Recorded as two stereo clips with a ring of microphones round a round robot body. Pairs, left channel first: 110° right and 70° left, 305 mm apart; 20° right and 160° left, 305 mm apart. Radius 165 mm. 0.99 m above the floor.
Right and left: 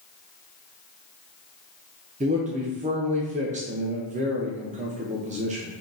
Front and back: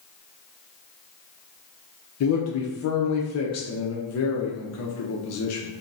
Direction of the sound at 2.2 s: 5° left.